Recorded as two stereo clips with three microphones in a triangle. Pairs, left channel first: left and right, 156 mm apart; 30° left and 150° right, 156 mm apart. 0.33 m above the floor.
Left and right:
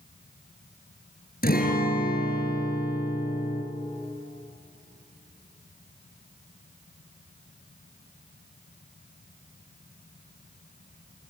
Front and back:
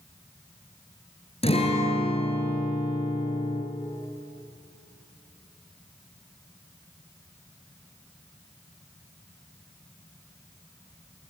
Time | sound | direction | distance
1.4 | a guitar | 80° left | 3.5 m